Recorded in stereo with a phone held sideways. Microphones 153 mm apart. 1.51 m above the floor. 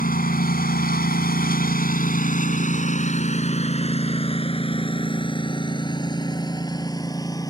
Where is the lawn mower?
65° left (ahead or behind); by 7.5 s 25° left (ahead or behind).